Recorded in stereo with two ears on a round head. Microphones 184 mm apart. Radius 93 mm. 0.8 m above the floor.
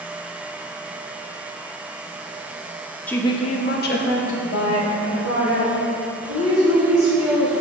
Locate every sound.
3.1 s a woman speaking: 5° left (ahead or behind), 0.7 m; by 7.5 s 70° left (ahead or behind), 4 m